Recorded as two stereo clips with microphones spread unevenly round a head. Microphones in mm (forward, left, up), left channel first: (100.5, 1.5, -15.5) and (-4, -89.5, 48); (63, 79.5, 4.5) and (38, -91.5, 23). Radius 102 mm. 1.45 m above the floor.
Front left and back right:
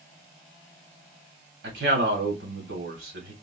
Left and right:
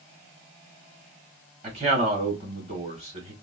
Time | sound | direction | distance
1.6 | a man speaking | 160° right | 1.6 m